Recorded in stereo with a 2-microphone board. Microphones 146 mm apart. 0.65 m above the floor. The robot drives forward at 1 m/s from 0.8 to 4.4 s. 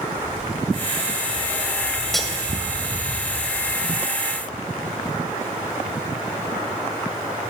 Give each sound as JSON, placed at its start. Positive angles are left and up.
{"t": 0.2, "sound": "footsteps", "side_deg": -60, "distance_m": 4.0}
{"t": 2.1, "sound": "cutlery clinking", "side_deg": 0, "distance_m": 1.6}